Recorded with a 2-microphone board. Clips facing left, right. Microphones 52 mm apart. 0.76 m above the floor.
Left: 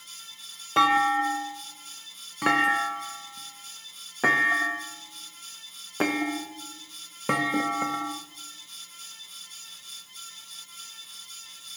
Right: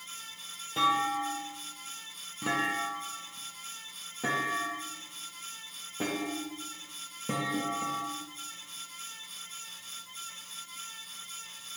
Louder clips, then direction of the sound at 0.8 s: Left 7 dB; 65° left (ahead or behind).